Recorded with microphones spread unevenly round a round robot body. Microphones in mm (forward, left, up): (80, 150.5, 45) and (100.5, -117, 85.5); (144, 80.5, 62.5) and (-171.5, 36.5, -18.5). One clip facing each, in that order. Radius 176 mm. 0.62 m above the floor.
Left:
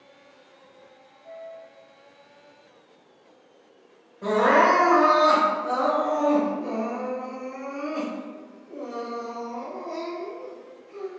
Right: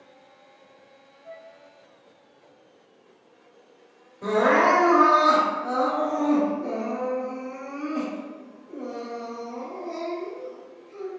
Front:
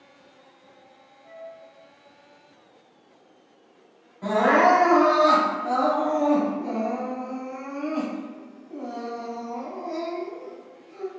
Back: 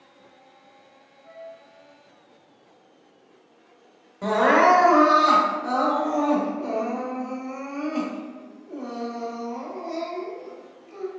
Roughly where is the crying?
Behind.